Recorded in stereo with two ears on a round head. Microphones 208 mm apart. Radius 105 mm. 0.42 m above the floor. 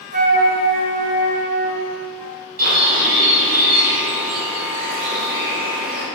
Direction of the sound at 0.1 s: 35° right (ahead or behind).